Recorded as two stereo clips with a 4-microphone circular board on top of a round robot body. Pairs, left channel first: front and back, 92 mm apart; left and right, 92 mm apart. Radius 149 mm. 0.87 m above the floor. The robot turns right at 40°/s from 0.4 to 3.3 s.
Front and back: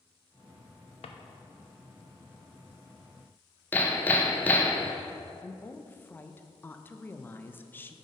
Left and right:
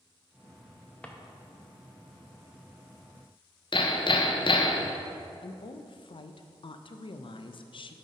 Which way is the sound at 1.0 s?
10° left.